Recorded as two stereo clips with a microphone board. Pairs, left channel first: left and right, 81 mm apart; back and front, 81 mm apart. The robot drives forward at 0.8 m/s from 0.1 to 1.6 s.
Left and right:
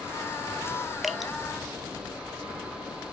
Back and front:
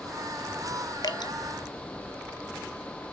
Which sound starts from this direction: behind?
Dripping, at 1.0 s.